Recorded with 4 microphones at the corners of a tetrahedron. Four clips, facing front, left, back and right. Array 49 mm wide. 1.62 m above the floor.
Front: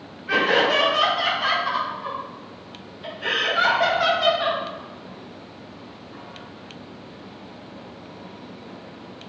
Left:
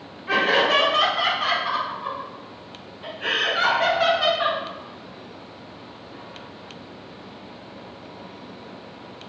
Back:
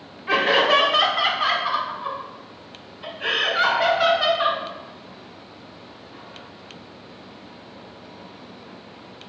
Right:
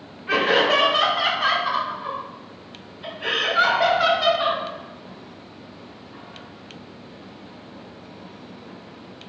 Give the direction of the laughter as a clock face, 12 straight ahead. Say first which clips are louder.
Even, back 1 dB; 6 o'clock.